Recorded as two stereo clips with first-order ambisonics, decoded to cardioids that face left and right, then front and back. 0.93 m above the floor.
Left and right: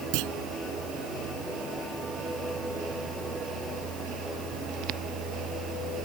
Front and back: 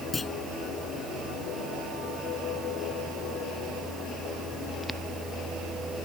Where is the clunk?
75° right.